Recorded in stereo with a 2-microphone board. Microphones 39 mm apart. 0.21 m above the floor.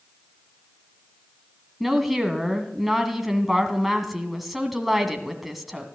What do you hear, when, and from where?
1.8 s a woman speaking: 5° right (ahead or behind), 1.6 m